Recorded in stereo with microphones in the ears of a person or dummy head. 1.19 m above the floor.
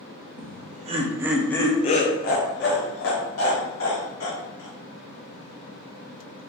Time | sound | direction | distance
0.4 | laughter | 50° right (ahead or behind) | 0.7 m